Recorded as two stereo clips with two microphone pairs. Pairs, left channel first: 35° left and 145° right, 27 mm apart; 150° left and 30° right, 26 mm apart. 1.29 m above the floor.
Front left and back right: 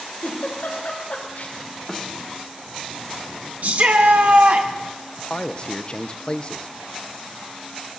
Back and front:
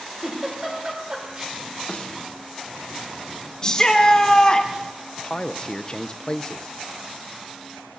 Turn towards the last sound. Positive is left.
turn(degrees=85)